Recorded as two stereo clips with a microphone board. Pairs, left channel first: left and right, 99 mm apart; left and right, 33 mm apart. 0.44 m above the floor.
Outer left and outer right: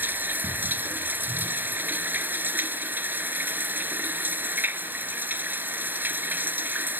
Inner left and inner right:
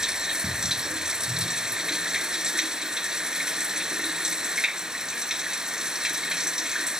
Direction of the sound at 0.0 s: 20° right (ahead or behind).